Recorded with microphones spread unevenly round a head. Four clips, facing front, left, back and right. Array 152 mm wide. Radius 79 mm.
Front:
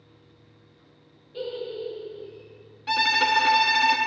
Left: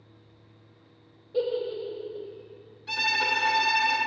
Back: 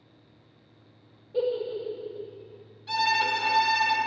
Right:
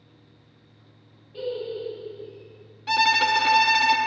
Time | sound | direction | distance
1.3 | a giggle | 140° left | 1.1 m
2.9 | a violin | 45° right | 0.8 m